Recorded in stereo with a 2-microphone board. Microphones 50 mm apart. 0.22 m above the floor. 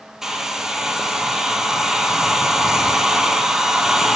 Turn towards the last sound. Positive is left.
turn(degrees=-10)  # may be behind; listen again after turning